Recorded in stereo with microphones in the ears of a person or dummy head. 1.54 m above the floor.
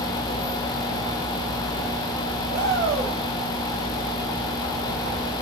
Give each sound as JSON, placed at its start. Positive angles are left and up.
{"t": 2.5, "sound": "a shout", "side_deg": -60, "distance_m": 3.5}